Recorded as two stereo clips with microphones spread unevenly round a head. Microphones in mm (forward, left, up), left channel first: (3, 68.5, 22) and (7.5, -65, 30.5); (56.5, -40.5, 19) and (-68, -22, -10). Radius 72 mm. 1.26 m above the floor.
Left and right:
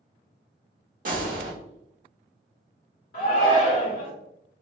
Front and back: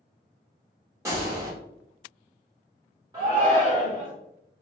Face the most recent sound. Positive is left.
turn(degrees=105)